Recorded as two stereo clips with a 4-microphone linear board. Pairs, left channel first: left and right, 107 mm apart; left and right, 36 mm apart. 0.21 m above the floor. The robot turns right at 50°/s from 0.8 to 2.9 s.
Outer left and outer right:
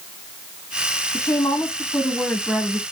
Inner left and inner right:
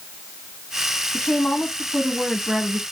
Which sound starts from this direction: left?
A woman speaking, at 1.1 s.